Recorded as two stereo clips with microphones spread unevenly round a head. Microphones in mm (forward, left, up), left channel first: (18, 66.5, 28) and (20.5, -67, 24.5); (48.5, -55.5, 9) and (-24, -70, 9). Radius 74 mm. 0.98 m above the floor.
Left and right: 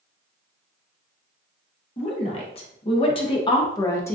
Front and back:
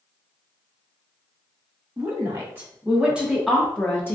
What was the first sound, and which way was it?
A woman speaking, 135° left.